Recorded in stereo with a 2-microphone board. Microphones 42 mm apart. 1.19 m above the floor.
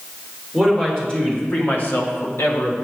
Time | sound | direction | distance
0.5 | a man speaking | 15° left (ahead or behind) | 3 m